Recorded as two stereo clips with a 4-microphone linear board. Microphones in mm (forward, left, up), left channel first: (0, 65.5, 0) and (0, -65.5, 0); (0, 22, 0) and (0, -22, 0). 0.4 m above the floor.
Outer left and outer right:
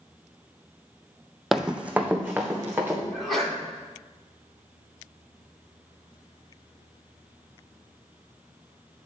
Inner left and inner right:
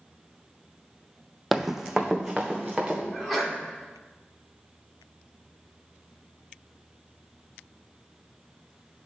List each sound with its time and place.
1.5 s running footsteps: centre (ahead or behind), 0.6 m; by 3.0 s 15° right (ahead or behind), 2.5 m
3.1 s a sneeze: centre (ahead or behind), 3.5 m